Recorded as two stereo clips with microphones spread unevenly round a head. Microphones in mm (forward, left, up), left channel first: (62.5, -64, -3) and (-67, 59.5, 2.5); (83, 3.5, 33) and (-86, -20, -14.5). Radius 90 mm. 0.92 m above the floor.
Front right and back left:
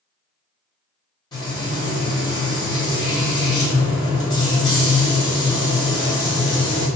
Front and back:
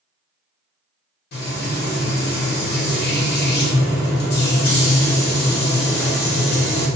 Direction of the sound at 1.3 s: 10° left.